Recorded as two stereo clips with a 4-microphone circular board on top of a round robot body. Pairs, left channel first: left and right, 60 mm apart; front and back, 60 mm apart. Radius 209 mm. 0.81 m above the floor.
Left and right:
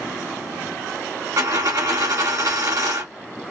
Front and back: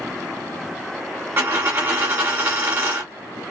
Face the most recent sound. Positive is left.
turn(degrees=-125)